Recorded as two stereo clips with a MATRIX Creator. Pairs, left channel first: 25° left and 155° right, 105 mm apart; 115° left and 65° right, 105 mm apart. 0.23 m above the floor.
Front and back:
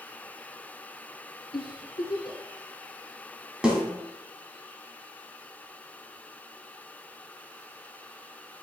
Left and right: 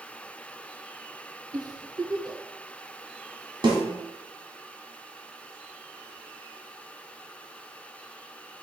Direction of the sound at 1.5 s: 15° right.